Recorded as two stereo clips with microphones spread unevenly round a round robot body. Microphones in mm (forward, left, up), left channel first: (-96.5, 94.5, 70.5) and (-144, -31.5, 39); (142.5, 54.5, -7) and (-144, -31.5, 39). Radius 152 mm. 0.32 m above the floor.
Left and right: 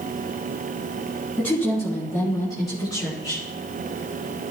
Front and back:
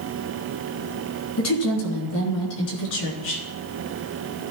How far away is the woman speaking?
About 3.5 m.